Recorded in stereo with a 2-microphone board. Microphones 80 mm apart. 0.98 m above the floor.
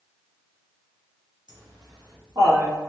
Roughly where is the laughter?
Right.